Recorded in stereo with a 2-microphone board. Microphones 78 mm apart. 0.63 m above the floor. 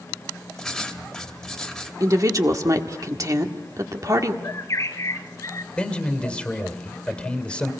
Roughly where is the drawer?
I don't hear a drawer.